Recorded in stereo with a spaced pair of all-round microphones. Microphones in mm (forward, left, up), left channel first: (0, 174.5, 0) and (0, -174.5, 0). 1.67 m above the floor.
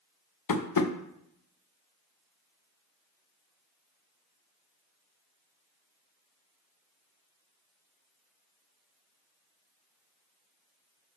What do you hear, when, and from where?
0.5 s tapping: 70° left (ahead or behind), 0.6 m